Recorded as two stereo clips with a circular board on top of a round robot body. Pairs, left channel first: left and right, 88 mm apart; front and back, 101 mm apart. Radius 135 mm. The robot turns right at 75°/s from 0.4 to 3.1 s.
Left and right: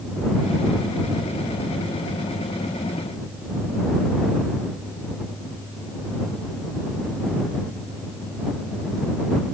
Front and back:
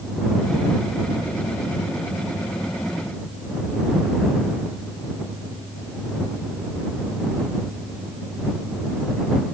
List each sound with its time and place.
Only background noise.